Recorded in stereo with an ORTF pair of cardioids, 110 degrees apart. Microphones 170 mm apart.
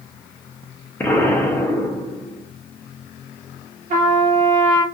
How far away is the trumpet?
About 1.1 m.